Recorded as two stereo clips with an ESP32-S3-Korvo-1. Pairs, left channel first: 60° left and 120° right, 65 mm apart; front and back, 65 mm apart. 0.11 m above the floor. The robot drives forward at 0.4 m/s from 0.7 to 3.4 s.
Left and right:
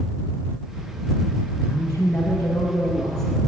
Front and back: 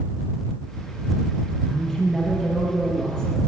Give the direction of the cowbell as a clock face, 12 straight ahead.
No cowbell in this recording.